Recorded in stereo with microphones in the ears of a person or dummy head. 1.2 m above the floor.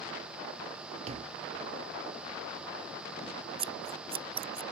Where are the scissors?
30° right (ahead or behind).